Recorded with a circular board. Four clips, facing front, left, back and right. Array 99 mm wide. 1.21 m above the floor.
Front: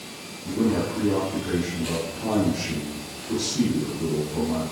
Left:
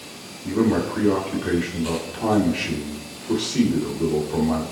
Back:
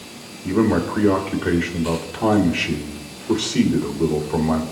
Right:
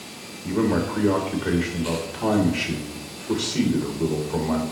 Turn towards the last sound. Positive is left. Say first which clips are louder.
# left 2 dB, back 5 dB
turn(degrees=170)